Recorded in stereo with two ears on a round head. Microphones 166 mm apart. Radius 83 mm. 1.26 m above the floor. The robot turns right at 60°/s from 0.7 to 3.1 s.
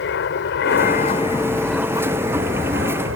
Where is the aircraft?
65° left (ahead or behind); by 3.2 s 75° right (ahead or behind).